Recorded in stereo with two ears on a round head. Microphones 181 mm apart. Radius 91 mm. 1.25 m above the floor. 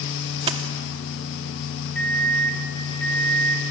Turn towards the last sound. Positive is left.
turn(degrees=5)  # may be behind; listen again after turning